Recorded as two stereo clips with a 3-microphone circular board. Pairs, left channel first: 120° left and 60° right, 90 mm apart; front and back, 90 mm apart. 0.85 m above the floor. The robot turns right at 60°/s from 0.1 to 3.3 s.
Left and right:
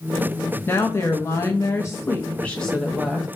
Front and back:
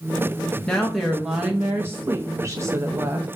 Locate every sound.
0.7 s a woman speaking: 75° left, 0.5 m; by 3.3 s 130° right, 0.5 m